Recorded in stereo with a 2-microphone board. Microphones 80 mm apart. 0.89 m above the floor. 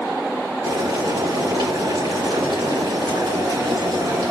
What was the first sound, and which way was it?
Boiling, 70° right (ahead or behind).